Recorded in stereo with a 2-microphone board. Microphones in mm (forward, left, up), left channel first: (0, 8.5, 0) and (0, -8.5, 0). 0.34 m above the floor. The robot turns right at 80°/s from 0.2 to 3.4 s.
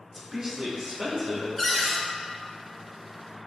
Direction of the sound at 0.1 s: 25° right (ahead or behind).